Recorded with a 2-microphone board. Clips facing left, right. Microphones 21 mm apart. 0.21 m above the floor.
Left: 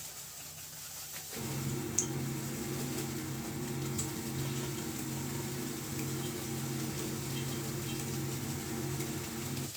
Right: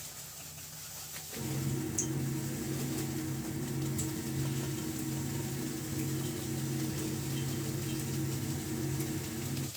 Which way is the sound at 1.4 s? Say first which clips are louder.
Right 2 dB; 50° left (ahead or behind).